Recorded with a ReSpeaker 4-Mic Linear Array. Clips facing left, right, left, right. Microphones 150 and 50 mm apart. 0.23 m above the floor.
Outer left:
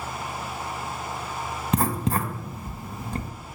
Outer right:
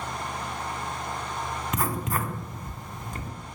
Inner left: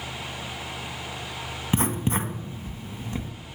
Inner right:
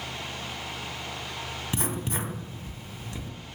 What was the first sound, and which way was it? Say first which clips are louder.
Writing: outer left 6 dB, inner left 7 dB; 30° left (ahead or behind).